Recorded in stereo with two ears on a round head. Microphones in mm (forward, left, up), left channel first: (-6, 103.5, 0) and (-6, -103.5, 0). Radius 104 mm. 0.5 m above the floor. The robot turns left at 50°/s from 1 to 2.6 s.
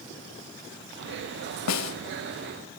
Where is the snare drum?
85° left, 1.0 m; by 2.0 s 70° left (ahead or behind), 1.0 m.